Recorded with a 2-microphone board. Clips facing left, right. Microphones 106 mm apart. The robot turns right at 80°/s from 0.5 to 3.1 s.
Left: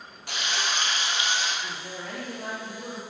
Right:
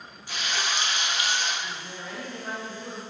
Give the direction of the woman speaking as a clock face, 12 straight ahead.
11 o'clock.